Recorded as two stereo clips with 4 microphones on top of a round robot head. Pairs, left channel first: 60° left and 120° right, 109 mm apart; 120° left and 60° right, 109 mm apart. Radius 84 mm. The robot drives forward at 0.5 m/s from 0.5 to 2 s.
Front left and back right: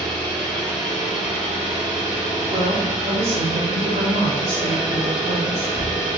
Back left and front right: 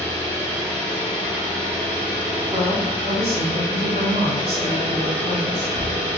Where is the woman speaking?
100° right, 1.2 m.